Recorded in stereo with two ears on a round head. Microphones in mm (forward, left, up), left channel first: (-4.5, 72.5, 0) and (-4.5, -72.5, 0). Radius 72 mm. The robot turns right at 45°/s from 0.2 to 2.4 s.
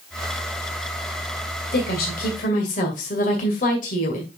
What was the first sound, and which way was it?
A woman speaking, 85° left.